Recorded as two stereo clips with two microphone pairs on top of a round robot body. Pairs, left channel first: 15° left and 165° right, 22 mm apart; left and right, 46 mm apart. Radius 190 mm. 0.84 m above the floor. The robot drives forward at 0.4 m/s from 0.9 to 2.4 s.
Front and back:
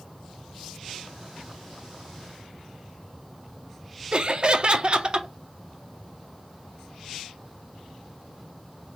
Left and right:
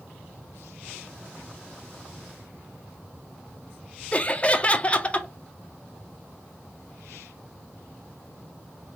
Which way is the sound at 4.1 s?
155° left.